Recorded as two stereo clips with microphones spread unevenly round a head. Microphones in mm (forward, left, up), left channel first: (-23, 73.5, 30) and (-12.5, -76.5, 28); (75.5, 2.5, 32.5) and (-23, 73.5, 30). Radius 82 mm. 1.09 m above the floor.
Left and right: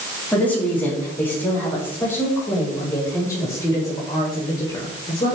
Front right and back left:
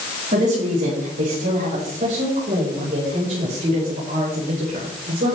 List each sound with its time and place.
0.3 s a woman speaking: 175° left, 7 m; by 5.4 s 150° left, 4.5 m